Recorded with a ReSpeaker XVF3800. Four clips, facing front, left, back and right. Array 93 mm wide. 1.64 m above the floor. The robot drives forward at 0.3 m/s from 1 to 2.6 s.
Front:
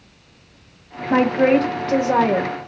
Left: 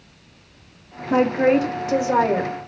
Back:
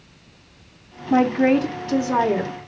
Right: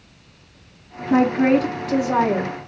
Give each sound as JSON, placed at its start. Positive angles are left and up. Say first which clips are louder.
{"t": 1.1, "sound": "a woman speaking", "louder": "right 1 dB, front 1 dB", "azimuth_deg": 20, "distance_m": 2.0}